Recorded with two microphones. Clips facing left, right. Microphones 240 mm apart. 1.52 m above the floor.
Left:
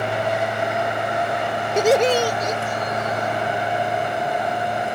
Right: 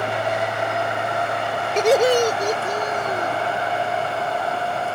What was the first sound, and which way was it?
Laughter, 10° left (ahead or behind).